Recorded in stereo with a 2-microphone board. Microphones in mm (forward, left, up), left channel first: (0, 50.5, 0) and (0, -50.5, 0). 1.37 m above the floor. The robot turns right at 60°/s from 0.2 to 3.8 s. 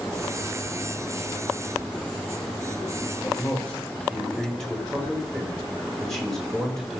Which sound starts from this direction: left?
A man speaking, at 3.2 s.